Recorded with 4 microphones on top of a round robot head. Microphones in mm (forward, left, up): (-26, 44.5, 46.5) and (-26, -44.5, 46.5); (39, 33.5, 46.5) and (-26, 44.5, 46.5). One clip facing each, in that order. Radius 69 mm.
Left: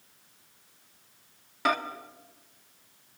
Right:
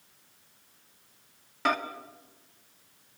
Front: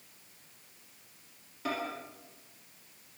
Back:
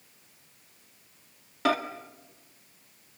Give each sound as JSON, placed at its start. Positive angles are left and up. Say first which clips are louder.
{"t": 1.6, "sound": "a microwave", "louder": "left 1 dB, back 10 dB", "azimuth_deg": 175, "distance_m": 1.7}